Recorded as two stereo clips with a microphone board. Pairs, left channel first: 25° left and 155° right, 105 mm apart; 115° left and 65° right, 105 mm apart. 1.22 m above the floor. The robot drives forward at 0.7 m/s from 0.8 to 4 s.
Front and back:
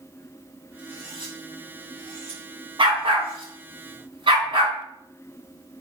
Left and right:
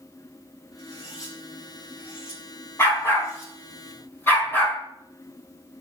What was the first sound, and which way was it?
Cutlery clinking, 165° left.